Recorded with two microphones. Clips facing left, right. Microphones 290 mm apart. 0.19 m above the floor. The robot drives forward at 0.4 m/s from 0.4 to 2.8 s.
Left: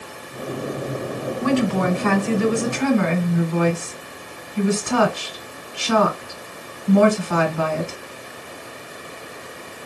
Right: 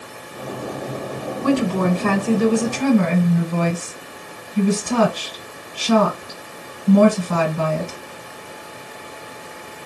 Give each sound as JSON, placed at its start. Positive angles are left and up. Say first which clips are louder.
{"t": 1.4, "sound": "a woman speaking", "louder": "right 1 dB", "side_deg": -45, "distance_m": 1.8}